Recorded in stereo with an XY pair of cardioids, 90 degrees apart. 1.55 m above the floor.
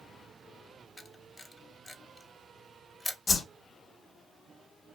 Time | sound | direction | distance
1.0 | a camera shutter | 20° left | 0.6 m
3.3 | a whoosh | 50° left | 0.8 m